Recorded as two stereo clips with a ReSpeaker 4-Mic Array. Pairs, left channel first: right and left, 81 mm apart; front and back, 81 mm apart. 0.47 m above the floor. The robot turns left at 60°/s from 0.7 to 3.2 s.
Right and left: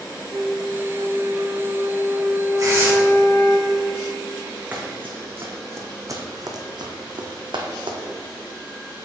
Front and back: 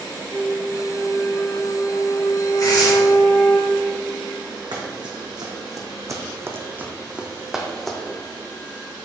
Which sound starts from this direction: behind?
Running footsteps, at 4.7 s.